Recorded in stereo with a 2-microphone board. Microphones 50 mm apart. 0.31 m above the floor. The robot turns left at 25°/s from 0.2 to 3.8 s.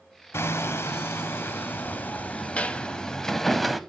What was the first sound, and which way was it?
Hammering, 85° left.